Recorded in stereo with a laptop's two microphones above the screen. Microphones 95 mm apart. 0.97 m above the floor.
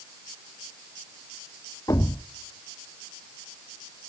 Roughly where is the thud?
Left.